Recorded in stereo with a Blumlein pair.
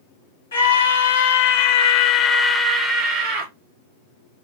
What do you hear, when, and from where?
0.5 s a scream: 70° left, 1.3 m; by 3.5 s 40° right, 0.9 m